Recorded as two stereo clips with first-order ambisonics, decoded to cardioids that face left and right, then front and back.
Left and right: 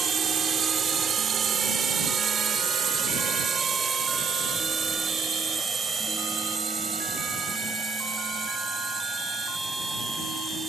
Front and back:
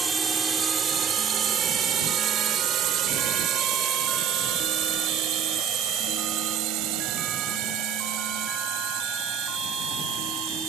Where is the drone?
125° right; by 10.7 s 160° right.